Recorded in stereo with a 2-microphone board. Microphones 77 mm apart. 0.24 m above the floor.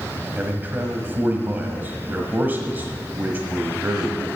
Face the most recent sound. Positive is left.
turn(degrees=-25)  # may be behind; listen again after turning